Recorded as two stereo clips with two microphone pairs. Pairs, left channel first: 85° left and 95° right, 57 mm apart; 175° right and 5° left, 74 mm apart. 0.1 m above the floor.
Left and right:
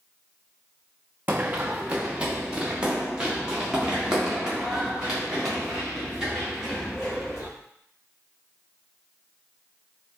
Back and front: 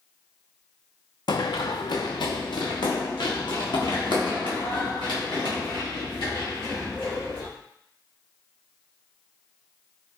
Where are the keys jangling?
I don't hear keys jangling.